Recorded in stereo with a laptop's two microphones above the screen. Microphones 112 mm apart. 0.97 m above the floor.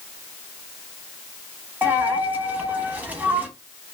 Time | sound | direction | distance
1.8 | a dropped coin | 15° right (ahead or behind) | 0.8 m